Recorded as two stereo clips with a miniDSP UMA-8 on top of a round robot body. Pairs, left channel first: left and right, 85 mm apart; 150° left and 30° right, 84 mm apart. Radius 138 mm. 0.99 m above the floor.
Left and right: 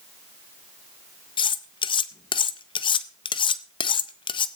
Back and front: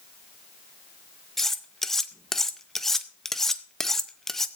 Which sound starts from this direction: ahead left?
Cutlery clinking, at 1.4 s.